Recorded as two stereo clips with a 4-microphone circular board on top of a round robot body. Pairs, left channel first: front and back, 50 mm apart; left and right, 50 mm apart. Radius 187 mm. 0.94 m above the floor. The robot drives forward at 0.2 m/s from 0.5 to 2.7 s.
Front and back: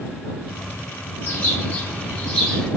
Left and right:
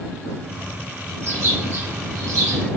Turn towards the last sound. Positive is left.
turn(degrees=-80)